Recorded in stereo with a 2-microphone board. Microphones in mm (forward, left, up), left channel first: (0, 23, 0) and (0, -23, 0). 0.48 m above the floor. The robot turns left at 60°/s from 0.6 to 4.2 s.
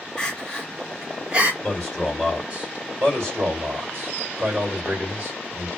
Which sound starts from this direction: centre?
Crying, at 0.2 s.